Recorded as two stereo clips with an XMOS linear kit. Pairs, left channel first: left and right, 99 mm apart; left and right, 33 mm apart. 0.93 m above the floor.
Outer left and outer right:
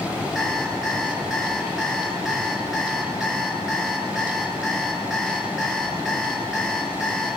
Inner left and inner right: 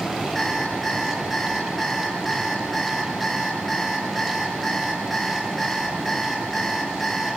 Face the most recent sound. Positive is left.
turn(degrees=0)  # may be behind; listen again after turning